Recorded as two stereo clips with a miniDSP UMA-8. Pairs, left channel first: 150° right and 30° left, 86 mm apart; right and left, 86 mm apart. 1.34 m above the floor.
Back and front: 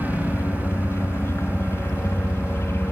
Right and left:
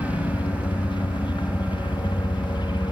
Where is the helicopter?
95° right; by 2.9 s 90° right.